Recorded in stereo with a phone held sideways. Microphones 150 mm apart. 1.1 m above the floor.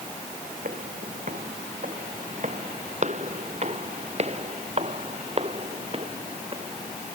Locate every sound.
0.7 s footsteps: 60° right (ahead or behind); by 7.2 s 40° right (ahead or behind)